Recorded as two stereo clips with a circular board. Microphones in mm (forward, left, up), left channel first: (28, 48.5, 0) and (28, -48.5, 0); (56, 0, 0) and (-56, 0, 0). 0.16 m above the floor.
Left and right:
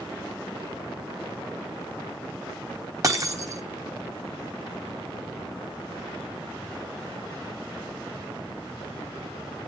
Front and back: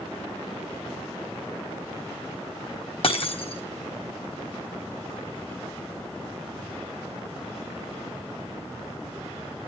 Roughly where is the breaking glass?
Ahead right.